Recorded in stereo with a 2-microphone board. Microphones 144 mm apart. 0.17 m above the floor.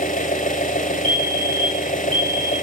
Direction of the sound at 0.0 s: 70° left (ahead or behind).